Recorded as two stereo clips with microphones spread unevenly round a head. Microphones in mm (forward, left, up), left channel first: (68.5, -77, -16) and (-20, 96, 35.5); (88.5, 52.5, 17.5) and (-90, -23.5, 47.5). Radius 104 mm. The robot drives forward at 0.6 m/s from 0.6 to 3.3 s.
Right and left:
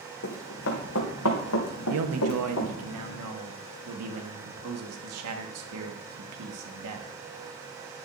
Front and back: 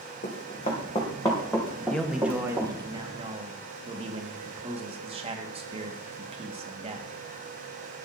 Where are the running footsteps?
35° right, 3 m; by 2.7 s 85° right, 3 m.